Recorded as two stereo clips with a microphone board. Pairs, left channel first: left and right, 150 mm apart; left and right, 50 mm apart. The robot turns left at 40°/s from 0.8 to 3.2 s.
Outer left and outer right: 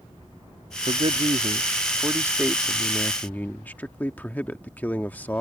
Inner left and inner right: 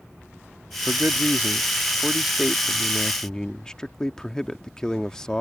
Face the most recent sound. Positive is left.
turn(degrees=165)